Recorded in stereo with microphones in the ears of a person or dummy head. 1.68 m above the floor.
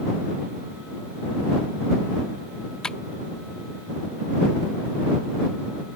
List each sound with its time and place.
2.8 s tapping: centre (ahead or behind)